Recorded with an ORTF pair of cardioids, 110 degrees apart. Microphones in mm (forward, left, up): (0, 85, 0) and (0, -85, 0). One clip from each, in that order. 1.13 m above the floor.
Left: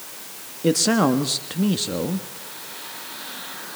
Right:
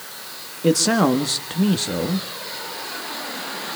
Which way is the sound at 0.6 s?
5° right.